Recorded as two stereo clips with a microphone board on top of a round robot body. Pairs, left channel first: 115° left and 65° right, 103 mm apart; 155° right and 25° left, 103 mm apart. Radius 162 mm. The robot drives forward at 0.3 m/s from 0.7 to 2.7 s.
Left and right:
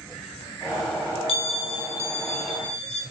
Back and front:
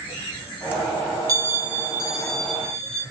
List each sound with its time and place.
1.3 s a bell: 80° left, 0.5 m; by 3.0 s 125° left, 0.6 m